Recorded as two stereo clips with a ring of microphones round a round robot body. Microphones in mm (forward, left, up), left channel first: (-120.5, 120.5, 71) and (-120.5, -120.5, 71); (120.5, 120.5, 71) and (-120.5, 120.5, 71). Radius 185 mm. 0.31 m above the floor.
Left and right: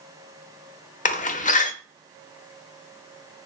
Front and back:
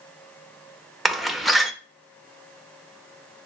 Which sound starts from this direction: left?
A door slam, at 1.1 s.